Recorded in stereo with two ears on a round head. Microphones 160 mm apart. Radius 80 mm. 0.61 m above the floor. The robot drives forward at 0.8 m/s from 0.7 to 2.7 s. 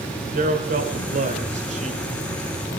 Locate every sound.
0.3 s a man speaking: 50° right (ahead or behind), 3 m; by 2.0 s 40° right (ahead or behind), 3.5 m